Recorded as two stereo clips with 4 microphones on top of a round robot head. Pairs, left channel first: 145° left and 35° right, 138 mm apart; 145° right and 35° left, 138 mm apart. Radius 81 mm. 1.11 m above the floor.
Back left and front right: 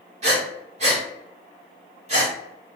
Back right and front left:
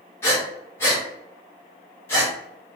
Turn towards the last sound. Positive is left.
turn(degrees=-75)